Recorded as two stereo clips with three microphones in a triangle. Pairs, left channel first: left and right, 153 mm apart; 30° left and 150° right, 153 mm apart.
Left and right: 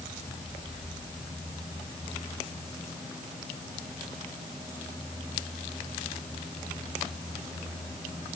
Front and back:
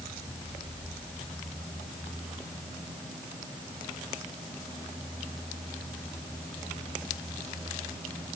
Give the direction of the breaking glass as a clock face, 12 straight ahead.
No breaking glass in this recording.